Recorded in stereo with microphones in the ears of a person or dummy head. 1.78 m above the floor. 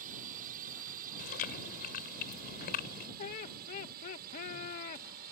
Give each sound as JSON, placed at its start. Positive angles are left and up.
{"t": 0.0, "sound": "a drone", "side_deg": -45}
{"t": 1.2, "sound": "chewing", "side_deg": 45}
{"t": 3.2, "sound": "laughter", "side_deg": 40}